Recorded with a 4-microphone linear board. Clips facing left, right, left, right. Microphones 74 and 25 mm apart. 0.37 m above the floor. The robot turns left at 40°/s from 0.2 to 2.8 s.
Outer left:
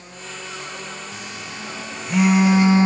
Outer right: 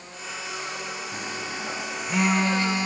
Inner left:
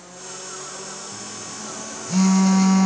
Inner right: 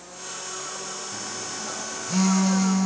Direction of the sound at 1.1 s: 45° right (ahead or behind).